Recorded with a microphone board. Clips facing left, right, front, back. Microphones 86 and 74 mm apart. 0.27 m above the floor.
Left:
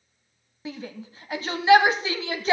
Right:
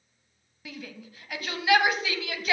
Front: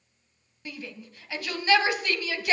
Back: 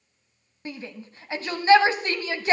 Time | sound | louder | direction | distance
0.7 | a shout | left 6 dB, back 3 dB | 135° left | 1.3 m